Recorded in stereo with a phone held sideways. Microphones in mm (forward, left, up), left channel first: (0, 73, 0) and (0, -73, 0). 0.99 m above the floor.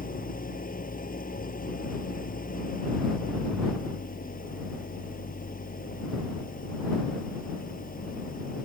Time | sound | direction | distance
0.0 | an engine running | 70° left (ahead or behind) | ?